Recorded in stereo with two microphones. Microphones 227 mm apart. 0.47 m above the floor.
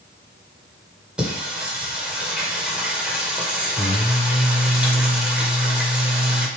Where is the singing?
5° right (ahead or behind), 2 m.